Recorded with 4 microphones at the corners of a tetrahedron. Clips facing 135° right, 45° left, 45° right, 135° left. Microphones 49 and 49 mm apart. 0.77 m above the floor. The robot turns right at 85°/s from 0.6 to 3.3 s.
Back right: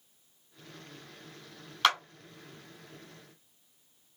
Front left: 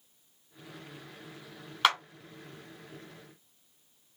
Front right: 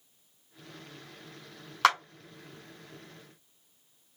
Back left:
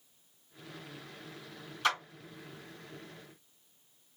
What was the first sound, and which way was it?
A clap, 35° right.